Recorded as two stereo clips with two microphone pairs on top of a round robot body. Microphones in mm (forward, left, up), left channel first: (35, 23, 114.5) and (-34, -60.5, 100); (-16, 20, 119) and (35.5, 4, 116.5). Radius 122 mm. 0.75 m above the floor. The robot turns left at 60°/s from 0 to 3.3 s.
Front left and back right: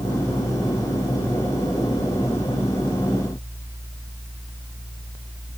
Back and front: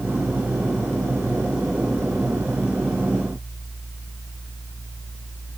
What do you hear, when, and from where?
Only background noise.